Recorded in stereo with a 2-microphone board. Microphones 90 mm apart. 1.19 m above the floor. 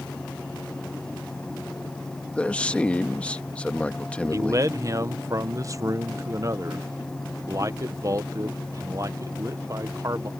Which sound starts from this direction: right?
A man speaking, at 4.3 s.